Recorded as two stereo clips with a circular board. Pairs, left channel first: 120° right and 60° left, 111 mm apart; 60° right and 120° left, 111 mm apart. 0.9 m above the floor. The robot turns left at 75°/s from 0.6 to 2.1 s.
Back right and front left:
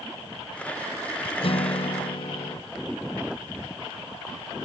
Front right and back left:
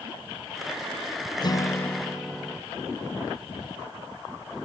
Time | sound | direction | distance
1.4 | a guitar | 100° right | 0.5 m